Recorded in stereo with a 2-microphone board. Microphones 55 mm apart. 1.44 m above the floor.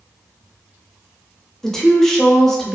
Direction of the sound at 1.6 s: 5° left (ahead or behind).